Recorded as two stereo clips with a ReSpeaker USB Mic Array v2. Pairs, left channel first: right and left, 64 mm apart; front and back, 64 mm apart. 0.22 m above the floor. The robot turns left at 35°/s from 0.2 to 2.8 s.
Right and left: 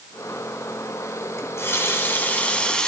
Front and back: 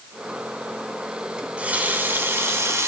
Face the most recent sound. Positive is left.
turn(degrees=-160)